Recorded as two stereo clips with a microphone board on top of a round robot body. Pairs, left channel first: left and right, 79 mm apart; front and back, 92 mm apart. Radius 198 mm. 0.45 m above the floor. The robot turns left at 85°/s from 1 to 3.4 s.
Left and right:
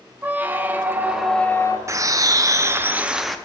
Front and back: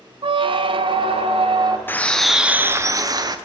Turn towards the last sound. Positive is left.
turn(degrees=170)